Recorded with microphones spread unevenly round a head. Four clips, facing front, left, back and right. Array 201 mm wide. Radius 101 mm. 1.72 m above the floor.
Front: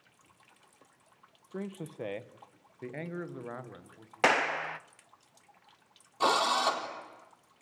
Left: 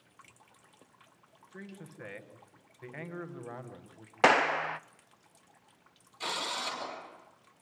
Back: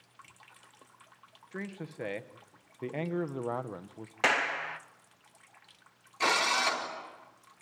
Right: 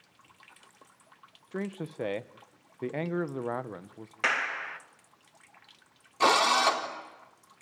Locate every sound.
1.5 s a man speaking: 80° right, 1.7 m; by 4.1 s 135° right, 1.6 m
4.2 s a clap: 65° left, 0.8 m
6.2 s a drill: 75° right, 5 m